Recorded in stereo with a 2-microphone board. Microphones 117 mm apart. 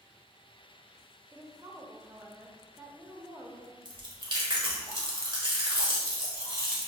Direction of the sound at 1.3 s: 25° right (ahead or behind).